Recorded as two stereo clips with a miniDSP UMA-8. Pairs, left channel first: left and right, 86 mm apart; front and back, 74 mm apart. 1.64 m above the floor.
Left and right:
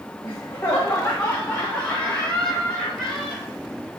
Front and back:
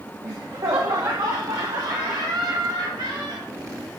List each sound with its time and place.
0.2 s laughter: 145° left, 1.4 m; by 3.5 s 175° left, 3 m